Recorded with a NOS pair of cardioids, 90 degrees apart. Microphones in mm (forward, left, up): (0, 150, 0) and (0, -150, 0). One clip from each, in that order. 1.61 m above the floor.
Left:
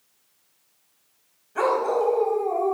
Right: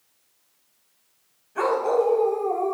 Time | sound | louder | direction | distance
1.6 | a dog barking | even | 15° left | 4 m